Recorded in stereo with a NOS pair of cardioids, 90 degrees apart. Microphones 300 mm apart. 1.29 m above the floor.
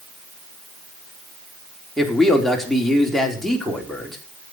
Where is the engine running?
No engine running in this recording.